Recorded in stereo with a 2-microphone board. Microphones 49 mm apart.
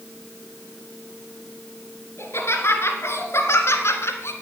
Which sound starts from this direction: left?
Laughter, at 2.2 s.